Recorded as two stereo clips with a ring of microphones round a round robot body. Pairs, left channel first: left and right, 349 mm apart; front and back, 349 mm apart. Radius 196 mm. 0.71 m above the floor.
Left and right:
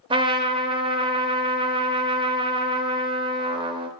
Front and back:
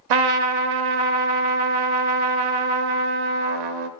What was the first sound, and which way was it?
A trumpet, 165° right.